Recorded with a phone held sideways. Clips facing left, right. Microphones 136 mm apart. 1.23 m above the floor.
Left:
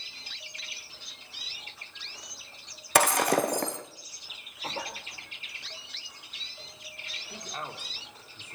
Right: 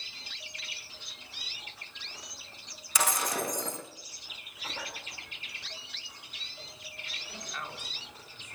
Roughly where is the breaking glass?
Left.